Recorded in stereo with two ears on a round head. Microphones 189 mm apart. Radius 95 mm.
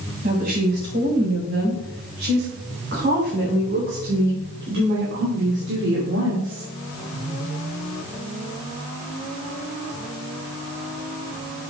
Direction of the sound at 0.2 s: 40° right (ahead or behind).